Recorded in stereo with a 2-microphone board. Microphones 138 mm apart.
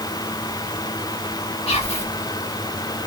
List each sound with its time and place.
1.7 s whispering: 45° left (ahead or behind), 1.5 m